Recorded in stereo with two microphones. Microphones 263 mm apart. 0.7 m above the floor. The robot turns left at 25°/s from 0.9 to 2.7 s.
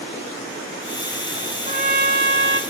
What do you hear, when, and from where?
1.7 s a trumpet: 30° right (ahead or behind), 1.5 m; by 2.6 s 50° right (ahead or behind), 1.5 m